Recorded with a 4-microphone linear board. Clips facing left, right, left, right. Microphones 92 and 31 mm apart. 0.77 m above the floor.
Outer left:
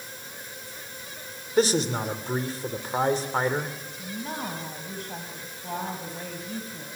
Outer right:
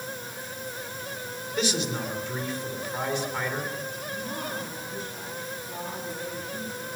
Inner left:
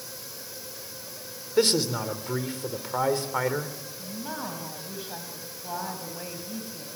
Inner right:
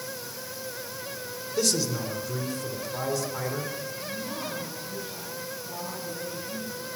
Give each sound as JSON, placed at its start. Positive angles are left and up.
{"t": 1.6, "sound": "a man speaking", "side_deg": 40, "distance_m": 3.0}
{"t": 4.0, "sound": "a woman speaking", "side_deg": 60, "distance_m": 5.0}